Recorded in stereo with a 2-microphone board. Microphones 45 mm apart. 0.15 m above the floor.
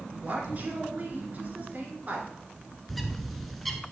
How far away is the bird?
About 0.6 m.